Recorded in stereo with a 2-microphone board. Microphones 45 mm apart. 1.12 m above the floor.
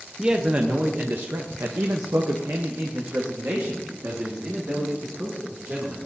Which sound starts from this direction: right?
A man speaking, at 0.2 s.